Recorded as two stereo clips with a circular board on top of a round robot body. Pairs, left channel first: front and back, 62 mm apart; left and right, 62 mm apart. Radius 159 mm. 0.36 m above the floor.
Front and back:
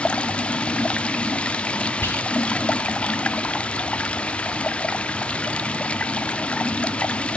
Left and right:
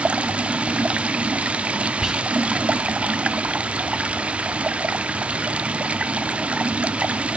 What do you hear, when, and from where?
0.0 s running water: 45° right, 1.1 m
2.0 s whispering: 15° right, 1.6 m